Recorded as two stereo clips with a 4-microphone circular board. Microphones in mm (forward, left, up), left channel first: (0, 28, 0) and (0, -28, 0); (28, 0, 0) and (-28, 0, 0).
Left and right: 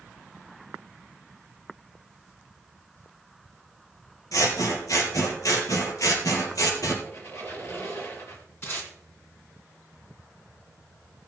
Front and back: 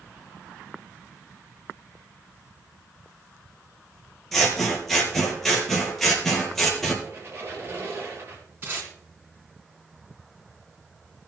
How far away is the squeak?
About 3 m.